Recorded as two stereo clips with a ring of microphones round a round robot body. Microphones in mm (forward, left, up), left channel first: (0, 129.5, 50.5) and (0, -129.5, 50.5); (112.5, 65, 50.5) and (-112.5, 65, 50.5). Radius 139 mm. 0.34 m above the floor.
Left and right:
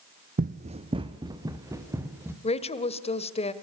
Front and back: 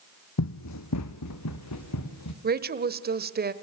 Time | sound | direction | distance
0.4 | running footsteps | 30° right | 1.2 m
2.4 | a woman speaking | 150° left | 1.6 m